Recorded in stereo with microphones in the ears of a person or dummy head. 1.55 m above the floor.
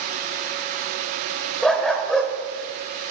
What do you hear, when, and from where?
1.6 s a dog barking: 5° left (ahead or behind), 2.5 m